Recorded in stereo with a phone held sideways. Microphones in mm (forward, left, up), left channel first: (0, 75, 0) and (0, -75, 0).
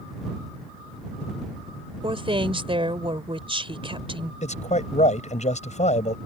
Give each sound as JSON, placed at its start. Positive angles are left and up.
{"t": 2.0, "sound": "a woman speaking", "side_deg": -35}
{"t": 4.4, "sound": "a man speaking", "side_deg": 50}